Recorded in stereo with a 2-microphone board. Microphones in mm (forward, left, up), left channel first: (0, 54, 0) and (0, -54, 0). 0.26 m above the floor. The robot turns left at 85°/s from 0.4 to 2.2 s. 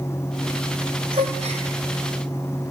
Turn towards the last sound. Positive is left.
turn(degrees=-145)